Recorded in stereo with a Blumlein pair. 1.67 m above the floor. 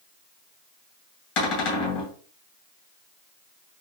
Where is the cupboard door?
45° left, 2 m.